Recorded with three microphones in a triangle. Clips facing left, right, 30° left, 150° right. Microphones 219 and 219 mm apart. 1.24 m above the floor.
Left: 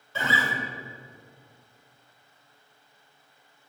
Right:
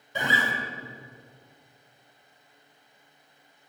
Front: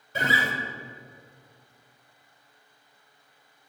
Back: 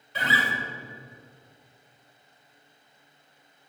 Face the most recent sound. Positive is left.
turn(degrees=-15)